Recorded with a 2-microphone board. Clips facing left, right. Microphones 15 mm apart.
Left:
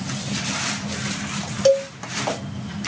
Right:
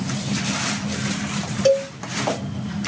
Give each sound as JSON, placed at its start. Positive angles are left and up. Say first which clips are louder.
{"t": 1.6, "sound": "a cowbell", "louder": "left 1 dB", "side_deg": 25, "distance_m": 1.1}